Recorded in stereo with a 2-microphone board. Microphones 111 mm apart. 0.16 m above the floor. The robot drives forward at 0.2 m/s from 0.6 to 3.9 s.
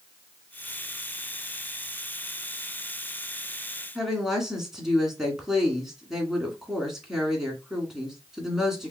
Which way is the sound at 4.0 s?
5° right (ahead or behind).